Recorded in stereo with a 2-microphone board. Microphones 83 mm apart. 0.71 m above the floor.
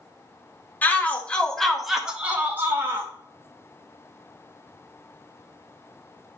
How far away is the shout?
About 1.1 m.